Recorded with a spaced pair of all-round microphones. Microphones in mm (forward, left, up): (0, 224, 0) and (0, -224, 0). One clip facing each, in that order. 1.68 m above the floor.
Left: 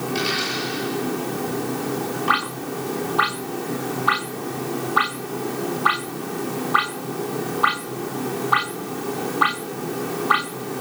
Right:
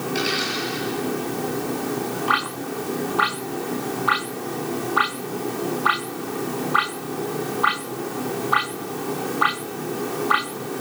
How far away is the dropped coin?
About 9.5 m.